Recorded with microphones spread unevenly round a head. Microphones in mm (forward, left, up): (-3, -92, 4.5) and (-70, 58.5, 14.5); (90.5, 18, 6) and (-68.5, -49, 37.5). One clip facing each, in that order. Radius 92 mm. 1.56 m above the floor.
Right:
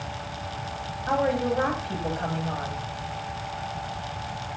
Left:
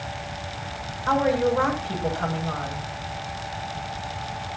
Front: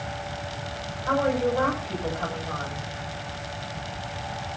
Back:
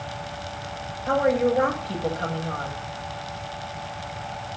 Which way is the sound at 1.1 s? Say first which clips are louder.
Left 3 dB, back 3 dB; 130° left.